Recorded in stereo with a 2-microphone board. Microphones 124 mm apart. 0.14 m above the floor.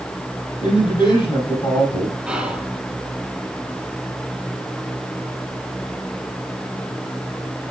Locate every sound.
0.6 s a woman speaking: 40° left (ahead or behind), 5 m
2.3 s whispering: 5° right (ahead or behind), 1.8 m